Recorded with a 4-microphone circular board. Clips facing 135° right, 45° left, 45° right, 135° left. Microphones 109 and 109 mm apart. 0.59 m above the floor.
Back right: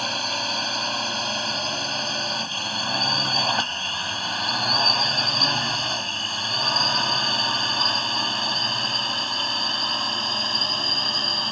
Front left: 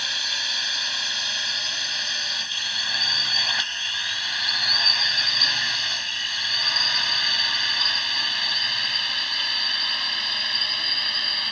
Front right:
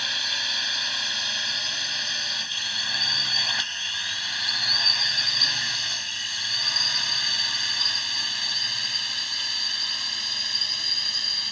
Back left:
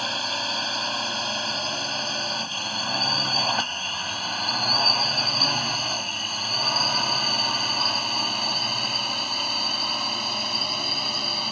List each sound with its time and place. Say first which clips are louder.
0.0 s a drone: back right 7 dB, back left 6 dB; 175° right; by 11.5 s 170° left